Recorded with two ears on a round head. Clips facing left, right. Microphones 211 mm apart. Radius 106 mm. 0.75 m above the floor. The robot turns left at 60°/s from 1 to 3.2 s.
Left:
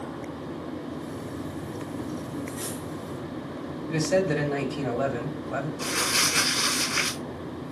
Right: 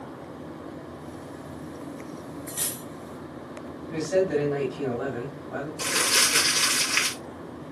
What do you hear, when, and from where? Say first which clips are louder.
2.5 s cutlery clinking: left 4 dB; 35° right (ahead or behind), 1.1 m; by 2.9 s 60° right (ahead or behind), 1.1 m
3.9 s a man speaking: right 1 dB; 55° left (ahead or behind), 3.5 m
5.8 s crumpling: left 1 dB; 85° right, 5 m